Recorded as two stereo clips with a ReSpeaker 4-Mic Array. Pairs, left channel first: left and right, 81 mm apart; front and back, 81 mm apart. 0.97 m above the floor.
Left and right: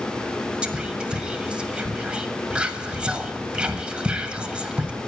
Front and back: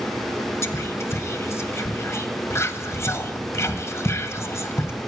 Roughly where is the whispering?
Ahead.